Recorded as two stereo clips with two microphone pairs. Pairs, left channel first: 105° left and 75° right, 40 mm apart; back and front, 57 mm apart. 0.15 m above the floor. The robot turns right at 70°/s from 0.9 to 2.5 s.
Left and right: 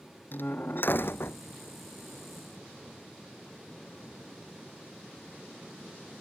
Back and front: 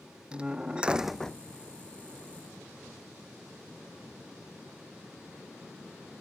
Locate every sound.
0.3 s a door slam: 75° left; by 1.4 s 110° left